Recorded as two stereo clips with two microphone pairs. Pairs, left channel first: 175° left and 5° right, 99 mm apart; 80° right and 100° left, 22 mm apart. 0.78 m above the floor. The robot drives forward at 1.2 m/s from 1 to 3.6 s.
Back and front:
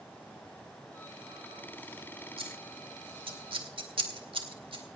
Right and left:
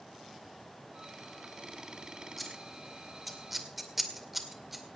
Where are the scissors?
10° left, 3.5 m; by 4.8 s 20° left, 2 m.